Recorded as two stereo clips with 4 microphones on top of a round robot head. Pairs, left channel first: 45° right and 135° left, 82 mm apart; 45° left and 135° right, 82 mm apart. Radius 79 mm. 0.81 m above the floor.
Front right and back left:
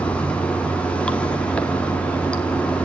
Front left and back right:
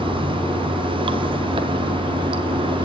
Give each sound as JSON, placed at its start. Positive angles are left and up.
{"t": 0.0, "sound": "running water", "azimuth_deg": -125, "distance_m": 1.4}